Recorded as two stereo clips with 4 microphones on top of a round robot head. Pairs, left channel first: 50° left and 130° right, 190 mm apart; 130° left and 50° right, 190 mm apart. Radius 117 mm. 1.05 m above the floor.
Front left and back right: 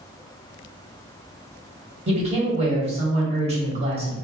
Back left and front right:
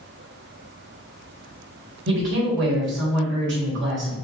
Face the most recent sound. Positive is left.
turn(degrees=-70)